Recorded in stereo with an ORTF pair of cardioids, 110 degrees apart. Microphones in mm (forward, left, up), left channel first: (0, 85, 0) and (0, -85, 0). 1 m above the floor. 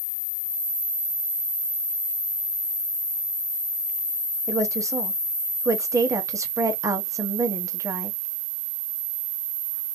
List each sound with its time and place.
4.5 s a woman speaking: 20° right, 1.1 m